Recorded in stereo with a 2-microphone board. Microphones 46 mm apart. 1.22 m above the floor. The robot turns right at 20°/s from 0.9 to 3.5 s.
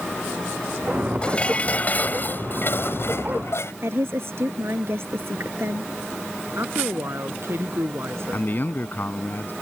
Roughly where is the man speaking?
Left.